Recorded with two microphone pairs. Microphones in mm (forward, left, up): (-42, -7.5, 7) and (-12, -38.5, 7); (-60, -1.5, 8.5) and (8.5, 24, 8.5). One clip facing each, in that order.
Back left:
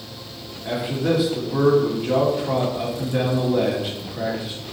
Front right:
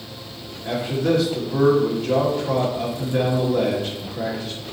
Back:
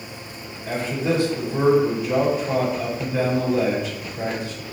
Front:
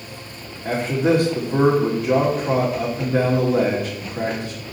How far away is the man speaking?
About 2 m.